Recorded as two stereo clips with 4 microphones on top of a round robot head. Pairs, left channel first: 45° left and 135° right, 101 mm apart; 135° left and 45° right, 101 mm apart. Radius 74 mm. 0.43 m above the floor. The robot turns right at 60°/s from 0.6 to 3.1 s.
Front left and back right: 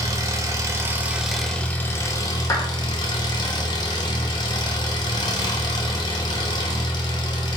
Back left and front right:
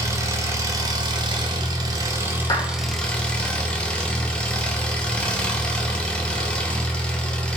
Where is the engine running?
90° right, 0.8 m; by 7.6 s 60° left, 0.8 m.